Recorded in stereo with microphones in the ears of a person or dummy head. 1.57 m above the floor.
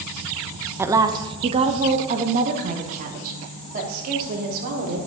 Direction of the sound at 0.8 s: 10° right (ahead or behind).